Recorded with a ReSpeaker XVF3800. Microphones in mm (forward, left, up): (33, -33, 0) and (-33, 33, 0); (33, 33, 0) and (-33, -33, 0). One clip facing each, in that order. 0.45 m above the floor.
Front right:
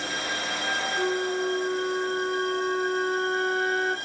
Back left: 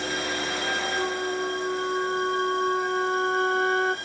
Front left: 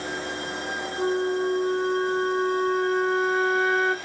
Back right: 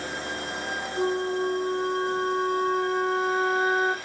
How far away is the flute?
About 1.0 m.